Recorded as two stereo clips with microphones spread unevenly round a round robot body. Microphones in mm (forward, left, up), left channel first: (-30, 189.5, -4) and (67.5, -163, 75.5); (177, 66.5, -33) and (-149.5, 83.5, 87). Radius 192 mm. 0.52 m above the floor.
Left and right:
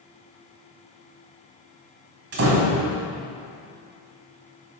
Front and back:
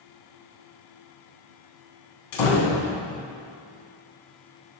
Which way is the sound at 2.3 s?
20° right.